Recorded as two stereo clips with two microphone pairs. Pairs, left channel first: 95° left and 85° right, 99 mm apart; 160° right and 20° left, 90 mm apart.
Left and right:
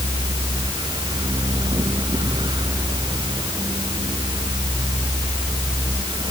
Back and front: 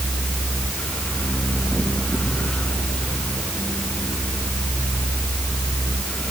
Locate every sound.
Only background noise.